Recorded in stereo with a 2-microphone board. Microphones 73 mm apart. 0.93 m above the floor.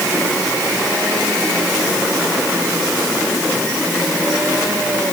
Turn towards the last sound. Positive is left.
No sound to turn to.